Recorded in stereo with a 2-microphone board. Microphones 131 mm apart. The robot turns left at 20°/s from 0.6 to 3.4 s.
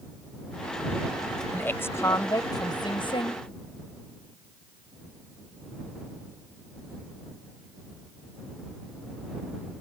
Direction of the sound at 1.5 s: 165° left.